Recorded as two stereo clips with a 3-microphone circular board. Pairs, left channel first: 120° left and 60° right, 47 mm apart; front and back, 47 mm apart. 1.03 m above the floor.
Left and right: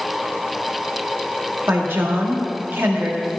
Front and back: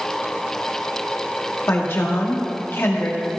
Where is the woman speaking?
30° right, 1.7 m.